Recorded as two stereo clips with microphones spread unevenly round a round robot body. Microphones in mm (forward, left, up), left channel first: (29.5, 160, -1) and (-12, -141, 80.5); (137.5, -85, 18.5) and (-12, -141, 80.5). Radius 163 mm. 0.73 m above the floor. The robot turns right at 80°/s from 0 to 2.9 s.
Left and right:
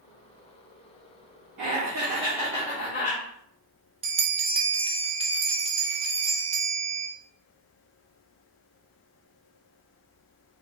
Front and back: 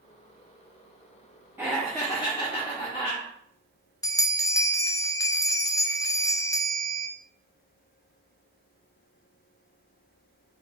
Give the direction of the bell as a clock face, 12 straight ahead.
1 o'clock.